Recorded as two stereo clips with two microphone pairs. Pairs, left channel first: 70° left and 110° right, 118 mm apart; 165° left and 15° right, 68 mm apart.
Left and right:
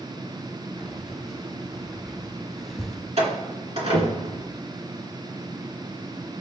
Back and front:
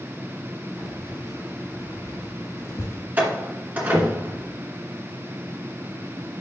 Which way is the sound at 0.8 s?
165° left.